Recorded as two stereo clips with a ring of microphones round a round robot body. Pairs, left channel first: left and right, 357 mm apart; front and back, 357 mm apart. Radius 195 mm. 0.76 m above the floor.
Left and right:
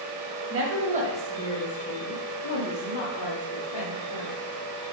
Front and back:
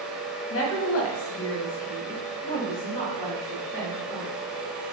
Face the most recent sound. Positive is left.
turn(degrees=90)